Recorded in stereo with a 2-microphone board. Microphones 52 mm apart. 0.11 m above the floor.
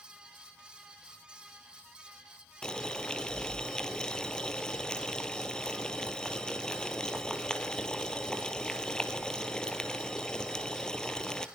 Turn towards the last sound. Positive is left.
turn(degrees=15)  # may be behind; listen again after turning